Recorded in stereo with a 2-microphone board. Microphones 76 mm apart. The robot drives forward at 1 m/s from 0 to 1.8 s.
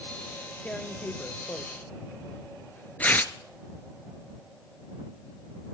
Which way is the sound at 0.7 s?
20° left (ahead or behind).